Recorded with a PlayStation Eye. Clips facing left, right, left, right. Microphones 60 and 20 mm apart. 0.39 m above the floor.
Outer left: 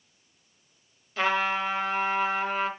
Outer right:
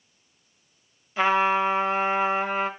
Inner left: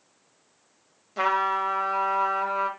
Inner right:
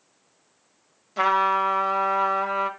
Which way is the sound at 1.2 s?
10° right (ahead or behind).